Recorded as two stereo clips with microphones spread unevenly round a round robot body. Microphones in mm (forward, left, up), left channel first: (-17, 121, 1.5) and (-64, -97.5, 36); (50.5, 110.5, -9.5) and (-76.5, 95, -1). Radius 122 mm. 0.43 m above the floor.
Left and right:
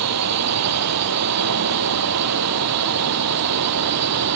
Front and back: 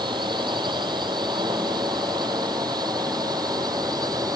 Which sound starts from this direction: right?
A drone, at 0.0 s.